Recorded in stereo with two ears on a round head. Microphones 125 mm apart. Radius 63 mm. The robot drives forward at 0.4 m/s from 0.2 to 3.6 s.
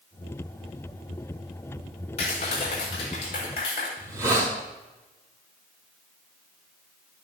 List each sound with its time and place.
2.2 s a clap: 50° left (ahead or behind), 6 m; by 3.9 s 45° left (ahead or behind), 6.5 m
4.0 s a hiss: 25° right (ahead or behind), 5 m